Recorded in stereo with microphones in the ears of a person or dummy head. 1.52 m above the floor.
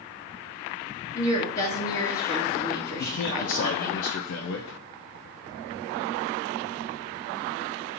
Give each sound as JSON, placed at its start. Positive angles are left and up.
{"t": 1.1, "sound": "a woman speaking", "side_deg": 30, "distance_m": 1.1}
{"t": 3.0, "sound": "a man speaking", "side_deg": 65, "distance_m": 0.5}